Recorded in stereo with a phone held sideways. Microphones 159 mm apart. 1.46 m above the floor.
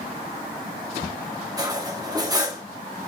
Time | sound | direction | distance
1.6 | cutlery clinking | 25° right (ahead or behind) | 1.4 m